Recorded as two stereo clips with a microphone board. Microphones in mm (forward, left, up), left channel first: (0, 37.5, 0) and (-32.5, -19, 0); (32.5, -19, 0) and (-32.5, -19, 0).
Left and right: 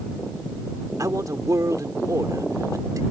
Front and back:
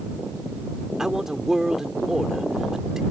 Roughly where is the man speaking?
Right.